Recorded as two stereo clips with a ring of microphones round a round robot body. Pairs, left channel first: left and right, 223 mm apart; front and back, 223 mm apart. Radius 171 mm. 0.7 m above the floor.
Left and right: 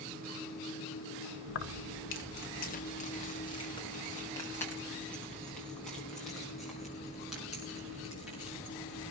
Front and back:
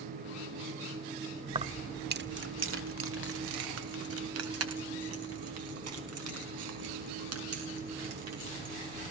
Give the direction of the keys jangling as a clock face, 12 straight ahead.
8 o'clock.